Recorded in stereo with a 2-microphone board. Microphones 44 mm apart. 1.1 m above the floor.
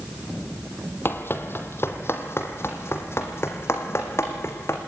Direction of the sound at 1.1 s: 55° left (ahead or behind).